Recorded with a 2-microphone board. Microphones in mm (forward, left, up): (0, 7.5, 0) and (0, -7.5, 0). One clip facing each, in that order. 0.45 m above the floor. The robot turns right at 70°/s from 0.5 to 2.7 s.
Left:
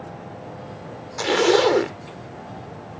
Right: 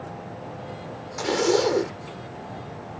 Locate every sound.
1.2 s a zipper: 45° left; by 2.0 s 100° left